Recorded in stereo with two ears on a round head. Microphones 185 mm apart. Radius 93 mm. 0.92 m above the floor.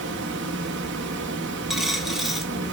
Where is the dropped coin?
Centre (ahead or behind), 0.5 m.